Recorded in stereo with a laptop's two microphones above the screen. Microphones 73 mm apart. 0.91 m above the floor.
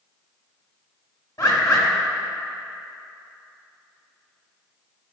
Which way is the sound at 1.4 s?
55° left (ahead or behind).